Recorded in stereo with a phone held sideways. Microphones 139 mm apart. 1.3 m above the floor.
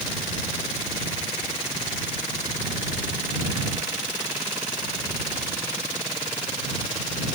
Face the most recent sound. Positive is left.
No sound to turn to.